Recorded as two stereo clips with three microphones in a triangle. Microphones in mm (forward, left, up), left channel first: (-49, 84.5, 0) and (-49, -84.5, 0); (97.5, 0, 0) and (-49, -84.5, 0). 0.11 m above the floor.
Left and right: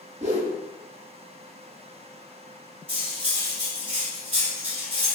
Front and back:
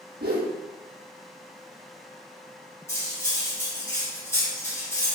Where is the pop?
I don't hear a pop.